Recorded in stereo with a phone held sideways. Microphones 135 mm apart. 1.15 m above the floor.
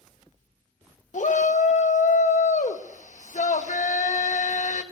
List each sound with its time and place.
1.1 s a shout: 65° left (ahead or behind), 1.4 m